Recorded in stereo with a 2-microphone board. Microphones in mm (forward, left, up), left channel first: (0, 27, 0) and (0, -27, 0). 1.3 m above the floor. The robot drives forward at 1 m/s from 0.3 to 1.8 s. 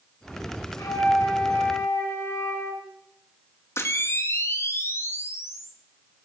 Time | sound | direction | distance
0.8 | a flute | 80° left | 3 m
3.8 | a camera shutter | 55° left (ahead or behind) | 1.4 m